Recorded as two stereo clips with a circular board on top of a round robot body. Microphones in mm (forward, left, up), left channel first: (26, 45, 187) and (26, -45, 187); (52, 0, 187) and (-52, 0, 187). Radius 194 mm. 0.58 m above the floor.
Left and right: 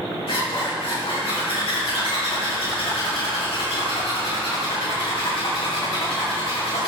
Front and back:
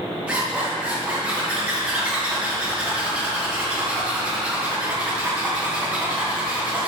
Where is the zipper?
100° left, 4 m.